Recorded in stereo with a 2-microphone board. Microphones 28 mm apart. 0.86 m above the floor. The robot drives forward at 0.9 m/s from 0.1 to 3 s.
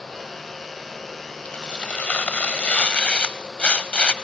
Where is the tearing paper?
45° left (ahead or behind), 1.2 m.